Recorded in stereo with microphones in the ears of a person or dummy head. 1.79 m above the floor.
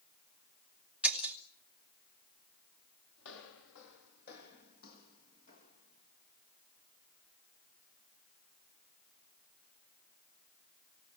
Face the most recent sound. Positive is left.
turn(degrees=30)  # may be behind; listen again after turning